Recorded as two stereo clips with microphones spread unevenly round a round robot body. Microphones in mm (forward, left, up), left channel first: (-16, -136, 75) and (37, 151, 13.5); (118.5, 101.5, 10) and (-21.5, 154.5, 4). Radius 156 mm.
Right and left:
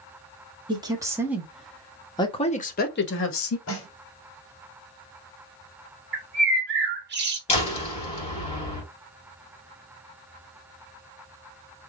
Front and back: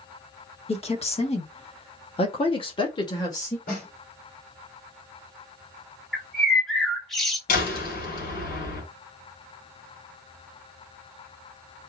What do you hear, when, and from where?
0.7 s a woman speaking: 15° left, 1.9 m; by 3.6 s 85° right, 1.3 m
3.7 s a snare drum: 50° right, 2.5 m
6.1 s a bird: 70° left, 1.5 m
7.5 s a door slam: 30° right, 2.5 m